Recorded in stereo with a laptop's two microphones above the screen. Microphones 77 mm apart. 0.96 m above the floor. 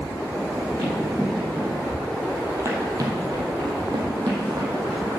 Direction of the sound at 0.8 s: Centre (ahead or behind).